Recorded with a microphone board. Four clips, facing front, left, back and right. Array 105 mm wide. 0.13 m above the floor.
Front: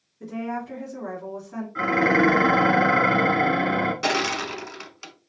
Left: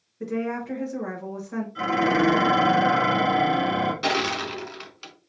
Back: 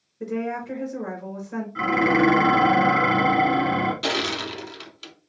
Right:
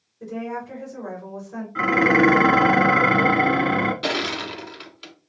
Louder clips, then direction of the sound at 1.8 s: Right 4 dB, even; 75° right.